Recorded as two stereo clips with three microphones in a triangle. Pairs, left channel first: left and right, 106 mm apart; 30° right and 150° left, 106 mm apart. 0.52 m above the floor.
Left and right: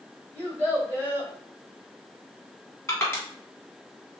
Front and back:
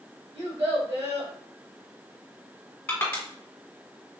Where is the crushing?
35° left, 1.3 m.